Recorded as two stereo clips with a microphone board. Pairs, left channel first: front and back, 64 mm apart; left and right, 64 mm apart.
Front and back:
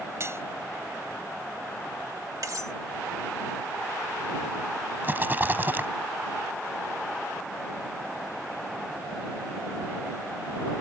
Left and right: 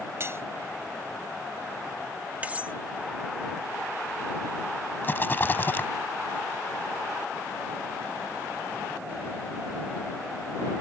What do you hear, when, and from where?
0.2 s cutlery clinking: 135° right
2.4 s cutlery clinking: 155° right
5.0 s a rattle: 135° left